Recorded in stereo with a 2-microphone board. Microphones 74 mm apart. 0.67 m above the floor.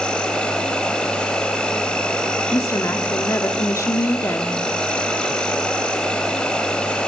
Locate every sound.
0.0 s an insect: 10° left (ahead or behind), 3.5 m
2.5 s a woman speaking: 40° left (ahead or behind), 1.8 m